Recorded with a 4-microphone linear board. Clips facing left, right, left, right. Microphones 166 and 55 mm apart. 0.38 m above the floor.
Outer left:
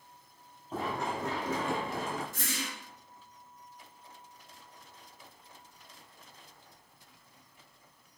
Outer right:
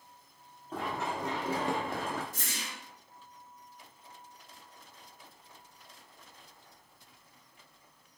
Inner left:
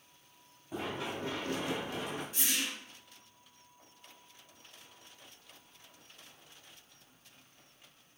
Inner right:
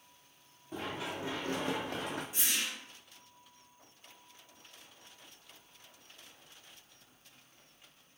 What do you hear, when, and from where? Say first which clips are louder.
0.7 s running footsteps: outer left 1 dB, inner left 1 dB; 10° left (ahead or behind), 1.0 m; by 2.2 s 65° right (ahead or behind), 1.0 m
2.3 s a whoosh: outer left 5 dB, inner left 2 dB; 15° right (ahead or behind), 1.5 m